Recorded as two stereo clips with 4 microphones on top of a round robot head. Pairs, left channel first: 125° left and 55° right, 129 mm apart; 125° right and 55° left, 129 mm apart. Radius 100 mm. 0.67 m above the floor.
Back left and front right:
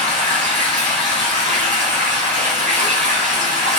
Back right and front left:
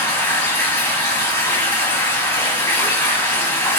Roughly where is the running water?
Ahead right.